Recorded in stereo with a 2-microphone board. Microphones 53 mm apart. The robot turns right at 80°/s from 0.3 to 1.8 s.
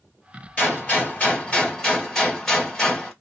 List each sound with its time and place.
0.6 s a gunshot: 25° left (ahead or behind), 1.5 m; by 3.1 s 10° left (ahead or behind), 1.5 m